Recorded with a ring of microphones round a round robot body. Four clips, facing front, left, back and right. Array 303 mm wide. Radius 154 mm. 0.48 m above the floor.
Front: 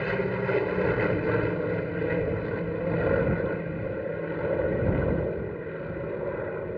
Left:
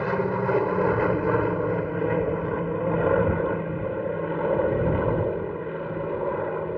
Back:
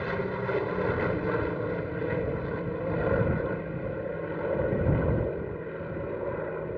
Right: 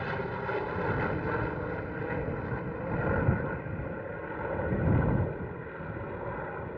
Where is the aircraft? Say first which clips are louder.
Left 9 dB, front 3 dB; 70° left; by 6.8 s 85° left.